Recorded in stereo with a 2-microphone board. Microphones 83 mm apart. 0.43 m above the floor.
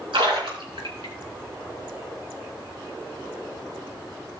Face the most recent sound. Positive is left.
turn(degrees=-80)